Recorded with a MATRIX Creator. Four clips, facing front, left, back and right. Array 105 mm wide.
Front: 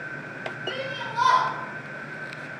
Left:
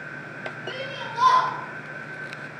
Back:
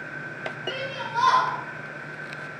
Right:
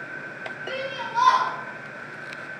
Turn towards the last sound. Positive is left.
turn(degrees=-135)